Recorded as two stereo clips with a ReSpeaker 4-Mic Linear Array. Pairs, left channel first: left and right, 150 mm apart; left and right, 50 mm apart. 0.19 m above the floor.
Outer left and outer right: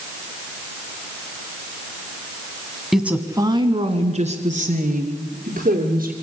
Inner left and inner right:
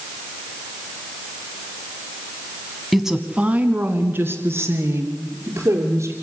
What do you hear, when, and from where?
2.9 s a woman speaking: centre (ahead or behind), 1.3 m; by 6.1 s 60° right (ahead or behind), 4.5 m